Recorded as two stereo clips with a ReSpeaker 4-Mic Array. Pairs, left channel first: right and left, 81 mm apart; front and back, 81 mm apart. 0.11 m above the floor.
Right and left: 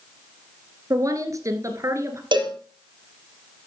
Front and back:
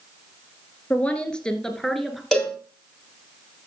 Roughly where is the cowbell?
Left.